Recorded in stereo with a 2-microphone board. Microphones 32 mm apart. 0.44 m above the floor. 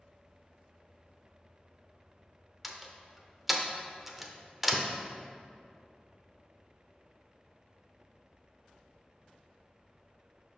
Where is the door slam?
5° right (ahead or behind), 0.6 m.